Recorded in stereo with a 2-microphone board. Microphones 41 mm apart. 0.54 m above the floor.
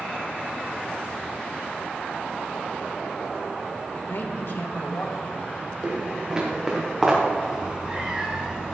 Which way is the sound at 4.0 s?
60° left (ahead or behind).